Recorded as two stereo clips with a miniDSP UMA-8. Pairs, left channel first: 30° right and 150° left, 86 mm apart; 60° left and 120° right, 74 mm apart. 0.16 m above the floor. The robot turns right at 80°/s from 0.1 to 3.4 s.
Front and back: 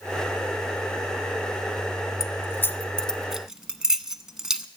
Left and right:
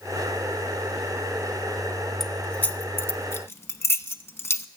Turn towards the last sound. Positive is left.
turn(degrees=70)